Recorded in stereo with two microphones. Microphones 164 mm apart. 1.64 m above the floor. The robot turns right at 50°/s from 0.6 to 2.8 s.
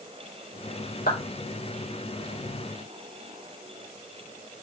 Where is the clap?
70° left (ahead or behind), 3.5 m; by 1.2 s 75° left (ahead or behind), 3.5 m.